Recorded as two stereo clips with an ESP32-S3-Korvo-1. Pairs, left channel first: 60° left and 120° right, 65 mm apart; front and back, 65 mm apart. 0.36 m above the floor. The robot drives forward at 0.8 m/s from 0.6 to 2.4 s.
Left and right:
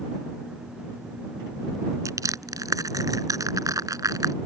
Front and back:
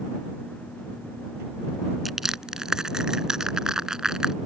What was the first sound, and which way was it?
Crushing, 90° right.